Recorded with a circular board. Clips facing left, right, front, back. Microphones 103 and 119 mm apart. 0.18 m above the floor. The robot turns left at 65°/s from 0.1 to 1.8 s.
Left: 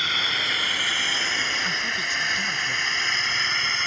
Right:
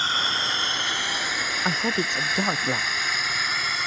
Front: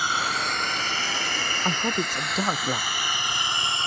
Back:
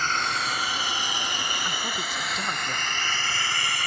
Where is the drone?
70° right; by 3.9 s 15° right.